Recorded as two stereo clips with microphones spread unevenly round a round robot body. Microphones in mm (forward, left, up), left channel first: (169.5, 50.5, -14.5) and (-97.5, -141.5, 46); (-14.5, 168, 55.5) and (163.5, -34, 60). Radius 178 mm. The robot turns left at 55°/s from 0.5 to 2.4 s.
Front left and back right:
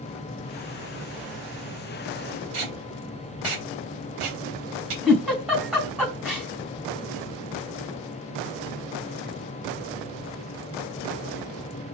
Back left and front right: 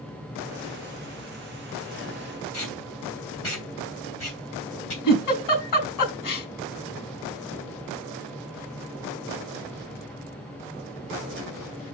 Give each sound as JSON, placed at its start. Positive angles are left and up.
{"t": 2.5, "sound": "tape being pulled", "azimuth_deg": -175, "distance_m": 4.0}
{"t": 5.0, "sound": "a giggle", "azimuth_deg": 130, "distance_m": 4.0}